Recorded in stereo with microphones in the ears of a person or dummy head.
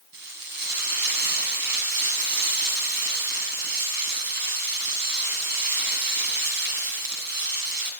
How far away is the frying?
About 6 m.